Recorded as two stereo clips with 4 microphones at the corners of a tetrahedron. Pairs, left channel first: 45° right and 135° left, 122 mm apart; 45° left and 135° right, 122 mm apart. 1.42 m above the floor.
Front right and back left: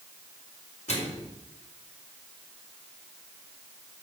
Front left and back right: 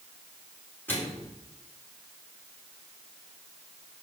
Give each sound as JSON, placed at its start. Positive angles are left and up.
{"t": 0.9, "sound": "a microwave", "azimuth_deg": -30, "distance_m": 4.0}